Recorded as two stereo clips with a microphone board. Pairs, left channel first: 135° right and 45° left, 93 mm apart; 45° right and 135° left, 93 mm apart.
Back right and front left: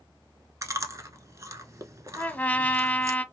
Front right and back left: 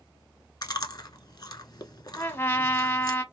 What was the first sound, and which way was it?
Chewing, 5° right.